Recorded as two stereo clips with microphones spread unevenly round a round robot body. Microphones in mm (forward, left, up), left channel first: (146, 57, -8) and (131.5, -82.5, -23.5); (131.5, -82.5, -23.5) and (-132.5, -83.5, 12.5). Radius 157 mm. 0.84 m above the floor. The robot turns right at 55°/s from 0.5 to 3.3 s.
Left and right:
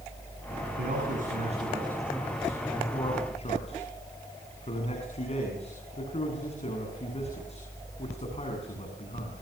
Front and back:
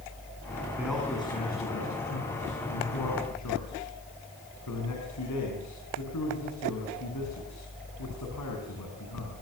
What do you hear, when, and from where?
0.8 s a man speaking: 100° right, 8 m; by 9.3 s 40° left, 8 m